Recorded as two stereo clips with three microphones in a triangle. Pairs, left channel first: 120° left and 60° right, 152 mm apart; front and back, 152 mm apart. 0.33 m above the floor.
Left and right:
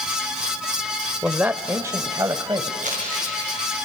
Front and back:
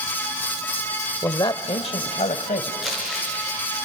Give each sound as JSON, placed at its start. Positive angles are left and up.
{"t": 1.2, "sound": "a man speaking", "azimuth_deg": 10, "distance_m": 0.9}
{"t": 2.8, "sound": "crumpling", "azimuth_deg": -90, "distance_m": 5.5}